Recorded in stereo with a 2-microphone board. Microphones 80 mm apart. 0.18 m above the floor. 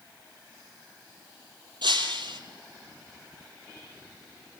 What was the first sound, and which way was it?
Breaking glass, 75° right (ahead or behind).